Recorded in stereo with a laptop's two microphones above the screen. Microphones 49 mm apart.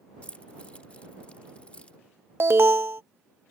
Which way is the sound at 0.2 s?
25° left (ahead or behind).